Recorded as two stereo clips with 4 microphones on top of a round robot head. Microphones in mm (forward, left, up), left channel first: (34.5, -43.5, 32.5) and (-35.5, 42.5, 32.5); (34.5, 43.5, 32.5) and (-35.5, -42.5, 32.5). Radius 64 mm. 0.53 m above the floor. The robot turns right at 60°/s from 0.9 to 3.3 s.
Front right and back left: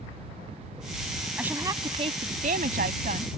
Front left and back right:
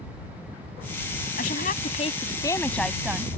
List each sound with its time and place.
1.4 s a woman speaking: 50° left; by 3.3 s 160° left